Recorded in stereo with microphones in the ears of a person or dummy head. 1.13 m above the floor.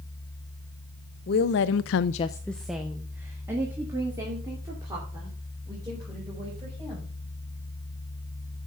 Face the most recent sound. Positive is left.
turn(degrees=-25)  # may be behind; listen again after turning